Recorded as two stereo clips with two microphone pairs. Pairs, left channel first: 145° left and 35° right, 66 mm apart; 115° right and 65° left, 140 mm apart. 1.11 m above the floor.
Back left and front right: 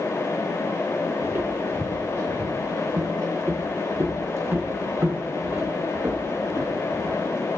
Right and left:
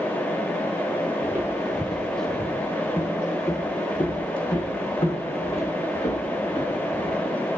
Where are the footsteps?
Straight ahead, 1.5 m; by 7.2 s 85° right, 3.5 m.